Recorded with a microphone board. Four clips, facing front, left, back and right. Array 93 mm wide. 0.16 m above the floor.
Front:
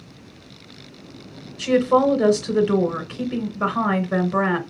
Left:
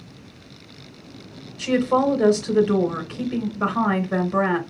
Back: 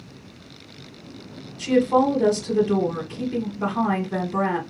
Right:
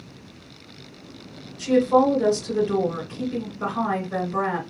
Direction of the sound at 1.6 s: 30° left.